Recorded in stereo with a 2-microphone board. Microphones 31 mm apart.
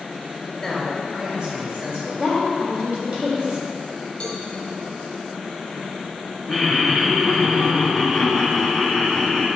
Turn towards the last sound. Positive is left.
turn(degrees=-15)  # may be behind; listen again after turning